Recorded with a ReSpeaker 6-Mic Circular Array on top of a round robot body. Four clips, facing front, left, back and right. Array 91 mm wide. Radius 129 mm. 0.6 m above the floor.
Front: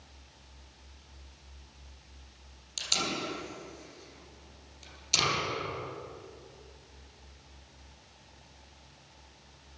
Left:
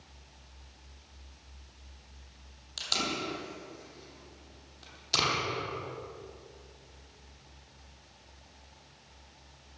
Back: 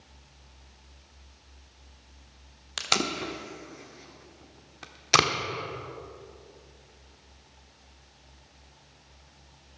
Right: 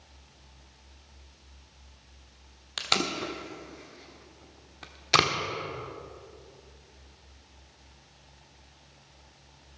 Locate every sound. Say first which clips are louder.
2.8 s tape being pulled: right 4 dB, back 5 dB; 140° right, 1.1 m